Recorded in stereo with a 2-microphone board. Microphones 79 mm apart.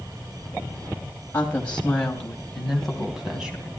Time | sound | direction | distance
1.3 | a woman speaking | 20° left (ahead or behind) | 2.5 m